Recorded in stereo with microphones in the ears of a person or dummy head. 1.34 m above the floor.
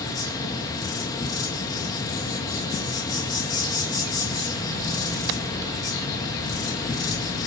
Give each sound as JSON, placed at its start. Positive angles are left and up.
{"t": 0.0, "sound": "an insect", "side_deg": 15, "distance_m": 1.8}